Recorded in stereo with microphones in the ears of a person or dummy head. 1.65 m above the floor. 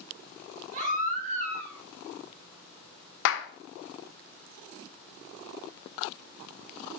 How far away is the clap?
About 0.6 m.